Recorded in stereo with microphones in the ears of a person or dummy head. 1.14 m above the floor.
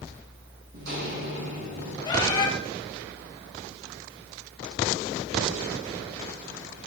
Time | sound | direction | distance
0.7 | footsteps | 70° right (ahead or behind) | 3.5 m
2.0 | a bird | 25° left (ahead or behind) | 1.5 m